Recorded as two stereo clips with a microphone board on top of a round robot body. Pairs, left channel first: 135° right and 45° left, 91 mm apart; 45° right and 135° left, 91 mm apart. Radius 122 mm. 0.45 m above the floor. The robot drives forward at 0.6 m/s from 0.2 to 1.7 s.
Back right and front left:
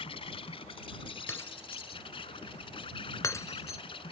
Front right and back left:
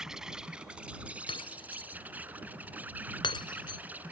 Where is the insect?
140° right; by 4.1 s 155° right.